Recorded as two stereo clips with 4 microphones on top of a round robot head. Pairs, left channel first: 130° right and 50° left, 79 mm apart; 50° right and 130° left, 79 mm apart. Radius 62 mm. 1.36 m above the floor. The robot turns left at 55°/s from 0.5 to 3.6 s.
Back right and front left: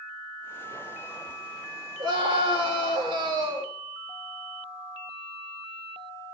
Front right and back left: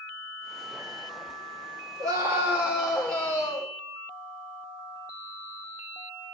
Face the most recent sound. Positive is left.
turn(degrees=-5)